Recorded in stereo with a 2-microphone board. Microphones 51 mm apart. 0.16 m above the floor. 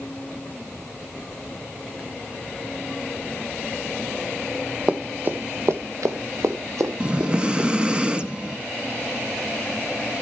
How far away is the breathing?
About 0.8 m.